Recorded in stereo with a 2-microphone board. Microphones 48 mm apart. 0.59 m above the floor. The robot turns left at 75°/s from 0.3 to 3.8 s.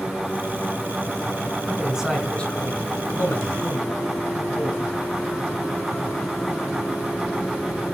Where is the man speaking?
35° right (ahead or behind), 5 m; by 4.9 s 55° left (ahead or behind), 5 m.